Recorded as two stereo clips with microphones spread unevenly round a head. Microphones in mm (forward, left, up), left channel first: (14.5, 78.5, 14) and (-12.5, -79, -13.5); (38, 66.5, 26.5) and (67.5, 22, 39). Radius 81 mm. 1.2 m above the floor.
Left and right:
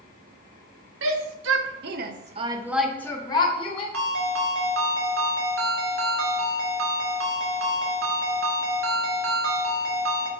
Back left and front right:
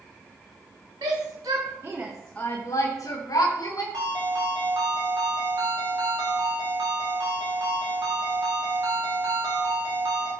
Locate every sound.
1.0 s a shout: 105° right, 1.5 m; by 3.8 s 135° left, 1.5 m
3.9 s a ringtone: 100° right, 1.7 m